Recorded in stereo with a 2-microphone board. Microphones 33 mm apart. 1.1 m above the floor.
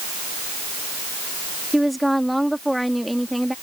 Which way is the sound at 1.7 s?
Centre (ahead or behind).